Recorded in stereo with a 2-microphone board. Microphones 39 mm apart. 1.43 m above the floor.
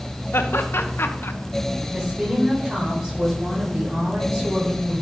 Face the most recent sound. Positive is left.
turn(degrees=-20)  # may be behind; listen again after turning